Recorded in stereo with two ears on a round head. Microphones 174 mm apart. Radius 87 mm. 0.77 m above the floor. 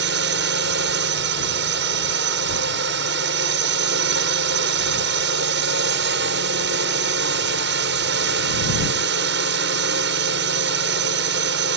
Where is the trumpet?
No trumpet in this recording.